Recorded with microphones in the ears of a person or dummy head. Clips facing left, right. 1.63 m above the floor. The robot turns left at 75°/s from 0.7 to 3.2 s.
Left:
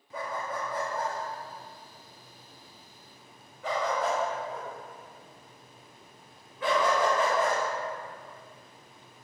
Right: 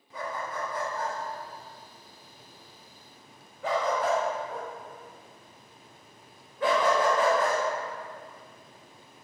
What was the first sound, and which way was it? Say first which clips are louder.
A dog barking: even; 35° left (ahead or behind).